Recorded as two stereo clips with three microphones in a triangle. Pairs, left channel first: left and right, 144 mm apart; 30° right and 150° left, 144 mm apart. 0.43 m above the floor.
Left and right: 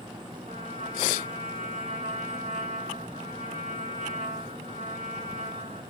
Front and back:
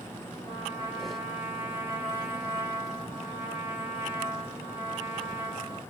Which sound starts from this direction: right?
A trumpet, at 0.5 s.